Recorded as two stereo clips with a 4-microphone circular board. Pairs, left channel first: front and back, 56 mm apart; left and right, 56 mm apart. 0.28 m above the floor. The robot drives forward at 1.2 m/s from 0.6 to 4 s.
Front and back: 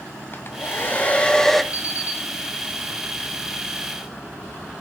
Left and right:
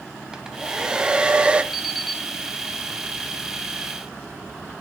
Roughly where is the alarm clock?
Ahead.